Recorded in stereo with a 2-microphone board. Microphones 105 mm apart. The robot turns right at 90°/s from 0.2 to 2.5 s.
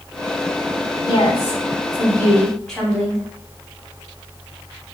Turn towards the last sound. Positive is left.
turn(degrees=170)